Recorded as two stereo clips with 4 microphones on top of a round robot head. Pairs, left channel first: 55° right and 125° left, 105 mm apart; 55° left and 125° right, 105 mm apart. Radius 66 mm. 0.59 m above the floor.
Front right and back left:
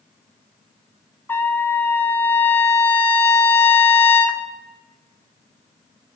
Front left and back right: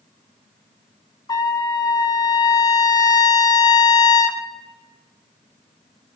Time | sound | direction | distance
1.3 | a trumpet | 10° left | 1.2 m